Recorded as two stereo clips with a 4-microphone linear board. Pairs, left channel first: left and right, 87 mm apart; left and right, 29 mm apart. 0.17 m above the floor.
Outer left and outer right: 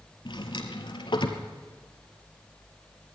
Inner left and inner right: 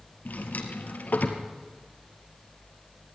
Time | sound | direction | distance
0.2 | a drawer | 70° left (ahead or behind) | 2.5 m